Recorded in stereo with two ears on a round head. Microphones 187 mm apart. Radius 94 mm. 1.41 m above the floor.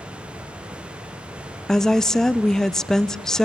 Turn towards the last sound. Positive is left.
turn(degrees=5)  # may be behind; listen again after turning